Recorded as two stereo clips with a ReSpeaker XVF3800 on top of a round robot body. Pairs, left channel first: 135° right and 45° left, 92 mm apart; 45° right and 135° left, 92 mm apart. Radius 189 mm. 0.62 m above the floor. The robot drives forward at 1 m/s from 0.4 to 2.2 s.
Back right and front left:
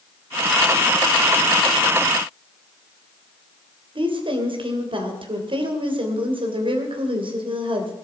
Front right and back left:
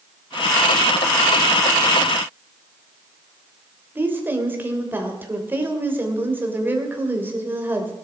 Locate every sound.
4.0 s a woman speaking: 65° left, 3 m